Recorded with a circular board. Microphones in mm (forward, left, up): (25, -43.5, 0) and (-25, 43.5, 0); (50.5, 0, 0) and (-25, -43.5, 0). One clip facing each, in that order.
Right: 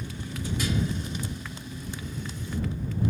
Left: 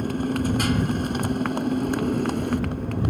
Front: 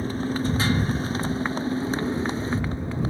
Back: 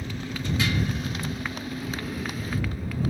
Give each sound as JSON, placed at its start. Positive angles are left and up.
{"t": 0.0, "sound": "a motorcycle", "azimuth_deg": 85}